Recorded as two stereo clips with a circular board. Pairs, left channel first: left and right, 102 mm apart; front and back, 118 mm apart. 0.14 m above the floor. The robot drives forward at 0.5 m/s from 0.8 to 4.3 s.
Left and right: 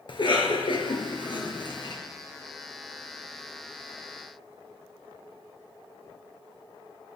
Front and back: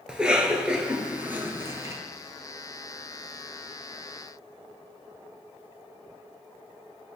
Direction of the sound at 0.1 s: 100° left.